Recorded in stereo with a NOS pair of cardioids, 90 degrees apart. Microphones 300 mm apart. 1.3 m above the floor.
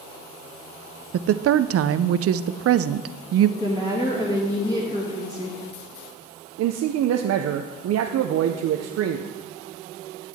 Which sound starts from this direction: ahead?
A woman speaking, at 3.6 s.